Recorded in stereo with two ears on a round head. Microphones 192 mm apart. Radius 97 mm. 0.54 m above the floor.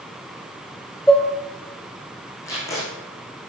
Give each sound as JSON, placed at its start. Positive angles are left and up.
{"t": 1.1, "sound": "dishes clattering", "side_deg": 5, "distance_m": 1.2}
{"t": 2.5, "sound": "tape being pulled", "side_deg": 15, "distance_m": 5.5}